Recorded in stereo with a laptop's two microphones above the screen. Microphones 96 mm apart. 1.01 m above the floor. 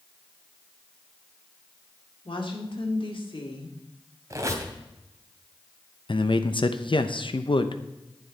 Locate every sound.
2.2 s a woman speaking: 60° left (ahead or behind), 2 m
4.3 s a squeak: 35° right (ahead or behind), 2 m
6.1 s a man speaking: 60° left (ahead or behind), 0.7 m